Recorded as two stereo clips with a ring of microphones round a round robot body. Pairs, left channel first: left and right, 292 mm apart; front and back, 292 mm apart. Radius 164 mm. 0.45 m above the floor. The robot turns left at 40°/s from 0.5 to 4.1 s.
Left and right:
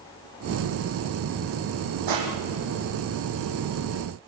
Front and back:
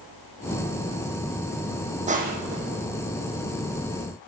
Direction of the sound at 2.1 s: 115° right.